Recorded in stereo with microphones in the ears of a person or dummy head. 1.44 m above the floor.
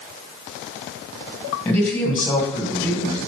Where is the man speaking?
10° left (ahead or behind), 1.4 m.